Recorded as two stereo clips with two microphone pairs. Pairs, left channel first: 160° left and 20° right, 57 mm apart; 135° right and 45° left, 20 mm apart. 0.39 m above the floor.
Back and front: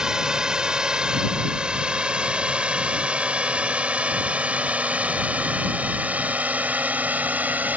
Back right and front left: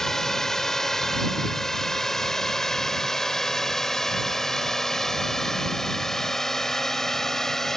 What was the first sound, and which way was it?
A drone, 85° right.